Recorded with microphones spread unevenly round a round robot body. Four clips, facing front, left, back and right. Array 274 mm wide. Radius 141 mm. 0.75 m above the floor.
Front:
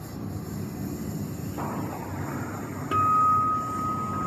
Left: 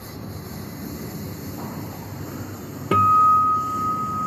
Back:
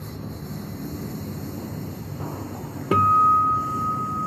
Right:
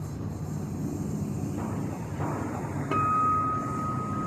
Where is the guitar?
140° left.